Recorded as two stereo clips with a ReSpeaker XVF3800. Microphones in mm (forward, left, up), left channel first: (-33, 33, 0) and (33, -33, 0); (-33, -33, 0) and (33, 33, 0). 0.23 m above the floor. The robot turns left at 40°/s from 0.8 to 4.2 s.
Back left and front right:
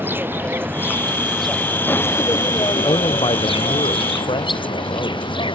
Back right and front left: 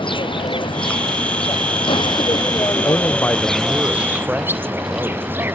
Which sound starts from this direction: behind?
A man speaking, at 2.8 s.